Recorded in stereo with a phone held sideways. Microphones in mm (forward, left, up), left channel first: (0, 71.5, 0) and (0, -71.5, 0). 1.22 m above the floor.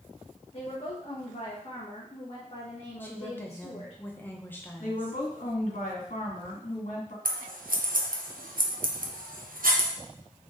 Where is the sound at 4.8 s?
60° left (ahead or behind), 1.9 m.